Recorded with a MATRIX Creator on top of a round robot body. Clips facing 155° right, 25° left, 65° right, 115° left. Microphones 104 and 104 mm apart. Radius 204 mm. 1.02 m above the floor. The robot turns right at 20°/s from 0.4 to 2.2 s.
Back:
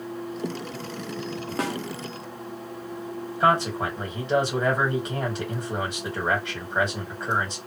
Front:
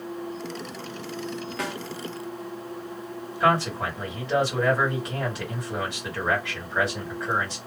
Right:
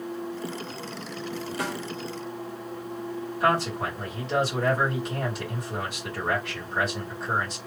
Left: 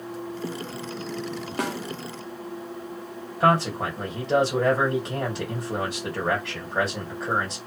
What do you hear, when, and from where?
1.6 s a snare drum: 150° left, 0.9 m; by 1.8 s 155° left, 0.9 m
3.4 s a man speaking: 140° left, 2 m